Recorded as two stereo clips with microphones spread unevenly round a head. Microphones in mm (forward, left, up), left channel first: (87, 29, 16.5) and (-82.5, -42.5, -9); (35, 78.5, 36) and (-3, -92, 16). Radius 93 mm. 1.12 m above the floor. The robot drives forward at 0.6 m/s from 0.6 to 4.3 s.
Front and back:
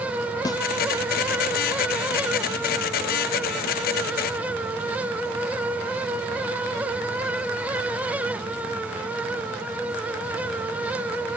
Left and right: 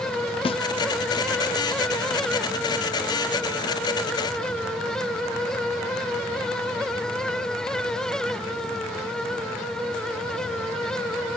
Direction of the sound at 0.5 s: 80° left.